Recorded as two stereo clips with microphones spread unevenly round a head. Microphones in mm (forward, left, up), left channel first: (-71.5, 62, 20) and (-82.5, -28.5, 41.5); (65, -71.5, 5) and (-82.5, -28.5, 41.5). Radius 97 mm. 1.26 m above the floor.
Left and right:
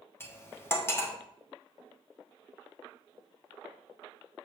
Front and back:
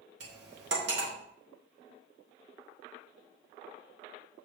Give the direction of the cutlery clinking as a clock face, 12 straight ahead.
7 o'clock.